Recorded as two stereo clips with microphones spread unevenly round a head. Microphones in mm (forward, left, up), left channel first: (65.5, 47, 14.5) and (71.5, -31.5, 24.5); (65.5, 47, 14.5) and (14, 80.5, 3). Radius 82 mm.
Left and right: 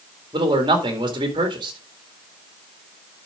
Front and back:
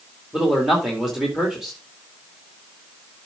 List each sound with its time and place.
0.3 s a man speaking: 130° right, 2 m